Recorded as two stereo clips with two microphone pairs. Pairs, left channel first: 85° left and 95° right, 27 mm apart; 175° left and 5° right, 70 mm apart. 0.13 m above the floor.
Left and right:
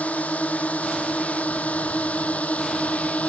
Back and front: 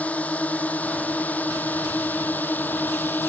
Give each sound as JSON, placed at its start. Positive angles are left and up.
{"t": 0.0, "sound": "a drone", "azimuth_deg": 105}